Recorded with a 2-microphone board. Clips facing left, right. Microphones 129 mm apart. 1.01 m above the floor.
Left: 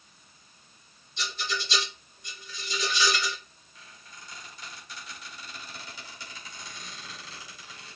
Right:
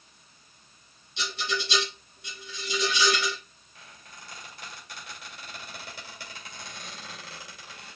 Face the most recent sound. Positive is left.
turn(degrees=-55)  # may be behind; listen again after turning